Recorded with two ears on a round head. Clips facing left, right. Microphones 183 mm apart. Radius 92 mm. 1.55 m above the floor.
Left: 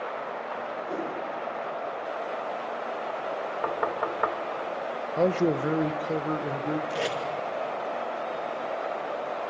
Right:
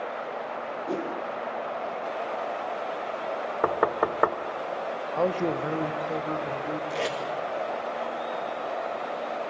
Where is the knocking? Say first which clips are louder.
Right 6 dB; 60° right (ahead or behind), 1.3 m.